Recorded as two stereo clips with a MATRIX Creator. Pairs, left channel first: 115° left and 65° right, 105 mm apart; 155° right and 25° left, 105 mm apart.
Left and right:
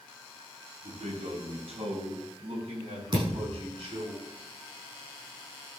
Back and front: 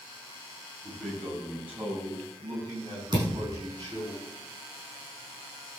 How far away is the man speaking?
About 5 m.